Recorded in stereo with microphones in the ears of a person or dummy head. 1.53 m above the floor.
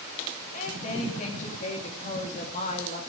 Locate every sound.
0.5 s a woman speaking: 45° left (ahead or behind), 3 m